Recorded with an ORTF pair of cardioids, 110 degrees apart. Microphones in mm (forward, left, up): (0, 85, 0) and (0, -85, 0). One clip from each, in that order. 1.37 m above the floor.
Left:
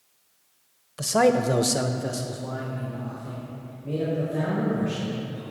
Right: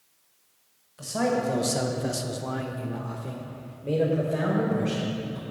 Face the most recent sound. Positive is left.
turn(degrees=-70)